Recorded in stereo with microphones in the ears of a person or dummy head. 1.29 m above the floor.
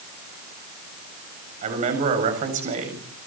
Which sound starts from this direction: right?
A man speaking, at 1.6 s.